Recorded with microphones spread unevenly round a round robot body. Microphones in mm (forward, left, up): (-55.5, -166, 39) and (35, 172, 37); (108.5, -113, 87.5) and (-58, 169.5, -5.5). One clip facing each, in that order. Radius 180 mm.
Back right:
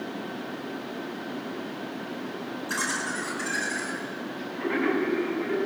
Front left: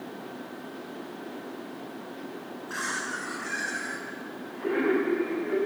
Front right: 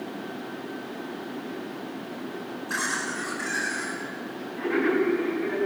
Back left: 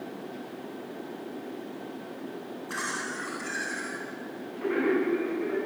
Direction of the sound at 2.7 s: 150° right.